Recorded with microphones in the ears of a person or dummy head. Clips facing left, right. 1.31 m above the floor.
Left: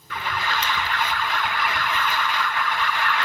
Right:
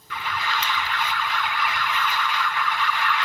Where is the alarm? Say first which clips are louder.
Left 1 dB; 40° left (ahead or behind), 0.6 m.